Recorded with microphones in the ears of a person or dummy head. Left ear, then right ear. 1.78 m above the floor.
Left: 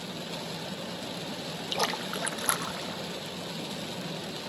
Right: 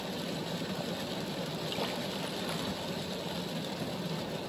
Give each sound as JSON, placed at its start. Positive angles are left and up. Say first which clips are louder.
{"t": 1.7, "sound": "a splash", "louder": "left 8 dB", "side_deg": 55, "distance_m": 0.5}